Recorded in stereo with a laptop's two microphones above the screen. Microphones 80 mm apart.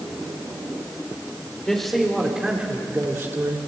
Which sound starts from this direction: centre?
A man speaking, at 1.7 s.